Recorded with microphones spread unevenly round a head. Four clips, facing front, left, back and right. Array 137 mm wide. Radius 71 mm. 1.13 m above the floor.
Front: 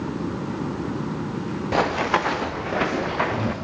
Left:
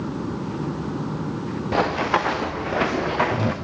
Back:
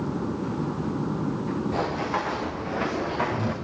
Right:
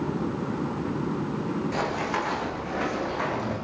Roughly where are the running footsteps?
Ahead left.